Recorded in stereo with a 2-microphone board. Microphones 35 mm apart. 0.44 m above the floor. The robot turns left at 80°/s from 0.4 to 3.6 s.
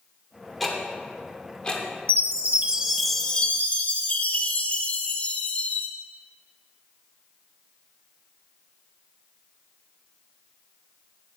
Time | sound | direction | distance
0.6 | ticking | centre (ahead or behind) | 0.9 m
2.1 | a chime | 105° right | 0.6 m